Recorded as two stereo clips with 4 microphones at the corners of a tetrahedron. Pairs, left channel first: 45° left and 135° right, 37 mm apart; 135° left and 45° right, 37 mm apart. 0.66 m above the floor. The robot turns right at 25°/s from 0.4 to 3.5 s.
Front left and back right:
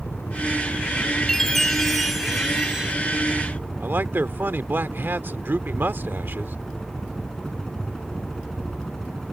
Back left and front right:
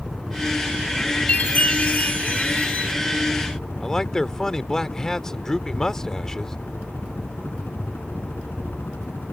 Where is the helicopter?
45° left; by 9.3 s 125° left.